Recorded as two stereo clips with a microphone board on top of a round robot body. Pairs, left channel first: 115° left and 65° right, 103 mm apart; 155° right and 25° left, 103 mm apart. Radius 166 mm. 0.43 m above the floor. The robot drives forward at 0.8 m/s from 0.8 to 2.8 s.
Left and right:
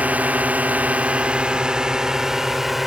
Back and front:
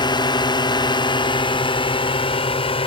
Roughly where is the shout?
No shout in this recording.